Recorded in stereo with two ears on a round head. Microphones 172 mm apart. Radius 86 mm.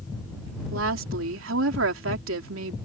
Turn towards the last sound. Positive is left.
turn(degrees=-75)  # may be behind; listen again after turning